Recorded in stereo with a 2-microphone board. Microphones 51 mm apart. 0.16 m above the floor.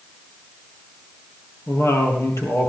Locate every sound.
1.7 s a woman speaking: 65° left (ahead or behind), 3.5 m